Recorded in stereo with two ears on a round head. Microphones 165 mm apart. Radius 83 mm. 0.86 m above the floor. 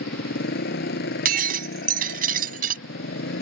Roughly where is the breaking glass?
Right.